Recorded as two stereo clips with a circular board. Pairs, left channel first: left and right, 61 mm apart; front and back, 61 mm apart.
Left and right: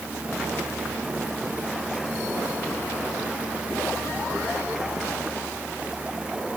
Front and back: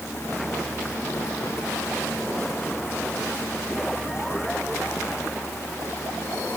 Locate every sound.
Only background noise.